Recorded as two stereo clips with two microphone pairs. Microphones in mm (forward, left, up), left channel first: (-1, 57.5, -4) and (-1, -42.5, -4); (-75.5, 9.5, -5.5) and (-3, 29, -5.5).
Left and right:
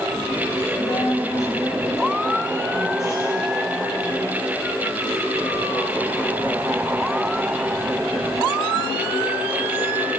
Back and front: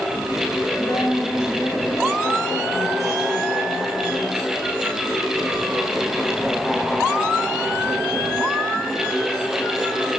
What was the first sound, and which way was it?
A woman speaking, 140° left.